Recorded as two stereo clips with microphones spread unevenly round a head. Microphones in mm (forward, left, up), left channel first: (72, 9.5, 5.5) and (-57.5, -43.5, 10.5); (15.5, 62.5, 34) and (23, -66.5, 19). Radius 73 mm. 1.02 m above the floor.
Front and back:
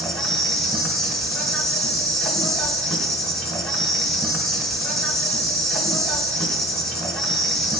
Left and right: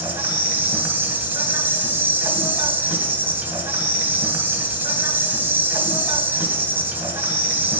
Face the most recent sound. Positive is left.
turn(degrees=-55)